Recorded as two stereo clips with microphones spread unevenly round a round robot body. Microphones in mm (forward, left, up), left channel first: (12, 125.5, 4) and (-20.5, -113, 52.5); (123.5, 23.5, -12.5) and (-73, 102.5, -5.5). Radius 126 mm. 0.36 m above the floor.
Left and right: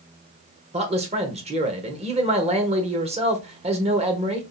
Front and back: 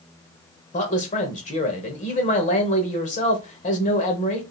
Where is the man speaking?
35° right, 1.2 m.